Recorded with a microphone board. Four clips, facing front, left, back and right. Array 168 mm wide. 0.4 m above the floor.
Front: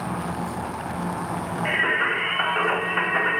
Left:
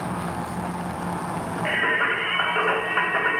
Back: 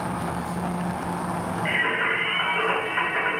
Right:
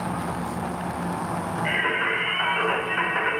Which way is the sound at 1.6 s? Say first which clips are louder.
Left 3 dB, front 3 dB; 70° left.